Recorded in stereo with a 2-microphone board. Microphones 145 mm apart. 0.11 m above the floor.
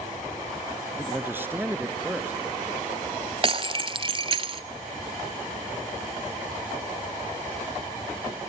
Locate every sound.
1.0 s a man speaking: 15° right (ahead or behind), 1.2 m
3.4 s breaking glass: 40° right (ahead or behind), 0.7 m